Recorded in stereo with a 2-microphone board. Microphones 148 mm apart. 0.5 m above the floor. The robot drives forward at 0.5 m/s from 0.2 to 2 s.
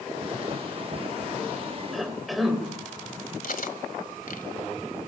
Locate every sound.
1.9 s a cough: centre (ahead or behind), 2.5 m
3.4 s cutlery clinking: 70° left (ahead or behind), 1.8 m